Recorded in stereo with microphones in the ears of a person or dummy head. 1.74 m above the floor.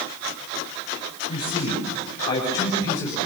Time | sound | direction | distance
1.3 | a man speaking | 35° left (ahead or behind) | 8 m